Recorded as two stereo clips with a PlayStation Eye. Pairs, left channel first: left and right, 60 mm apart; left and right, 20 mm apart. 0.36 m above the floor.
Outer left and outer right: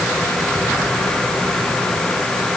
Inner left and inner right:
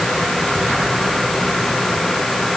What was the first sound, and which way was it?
Only background noise.